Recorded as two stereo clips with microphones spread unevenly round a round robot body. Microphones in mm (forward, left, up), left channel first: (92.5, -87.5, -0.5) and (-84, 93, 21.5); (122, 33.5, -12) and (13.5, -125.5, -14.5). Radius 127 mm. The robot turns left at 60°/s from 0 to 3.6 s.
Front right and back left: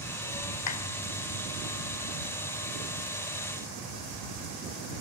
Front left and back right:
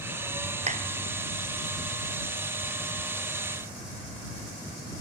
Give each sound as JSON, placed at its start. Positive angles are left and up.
{"t": 0.7, "sound": "a clap", "azimuth_deg": -70}